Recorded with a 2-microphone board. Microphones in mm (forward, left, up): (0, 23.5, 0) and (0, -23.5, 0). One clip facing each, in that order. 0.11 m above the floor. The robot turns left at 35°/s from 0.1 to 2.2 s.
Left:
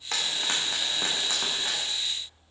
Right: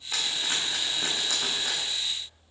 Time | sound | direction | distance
0.1 | frying | 65° left (ahead or behind) | 5 m